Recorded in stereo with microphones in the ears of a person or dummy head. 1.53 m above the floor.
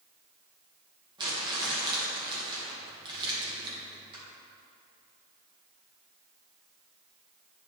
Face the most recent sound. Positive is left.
turn(degrees=-25)  # may be behind; listen again after turning